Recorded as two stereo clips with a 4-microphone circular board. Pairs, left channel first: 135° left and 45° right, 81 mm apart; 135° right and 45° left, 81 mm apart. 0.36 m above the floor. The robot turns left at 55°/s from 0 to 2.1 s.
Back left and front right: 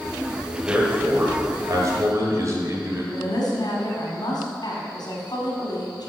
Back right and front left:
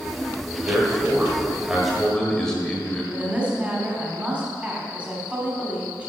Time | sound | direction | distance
0.6 | a man speaking | 30° left | 1.6 m
3.1 | a woman speaking | 115° left | 2.5 m